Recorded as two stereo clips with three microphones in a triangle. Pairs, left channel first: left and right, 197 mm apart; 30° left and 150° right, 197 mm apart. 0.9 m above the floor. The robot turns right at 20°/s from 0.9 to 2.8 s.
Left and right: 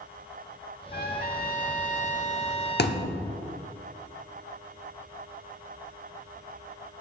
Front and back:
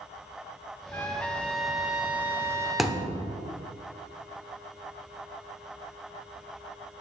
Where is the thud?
120° left, 0.8 m.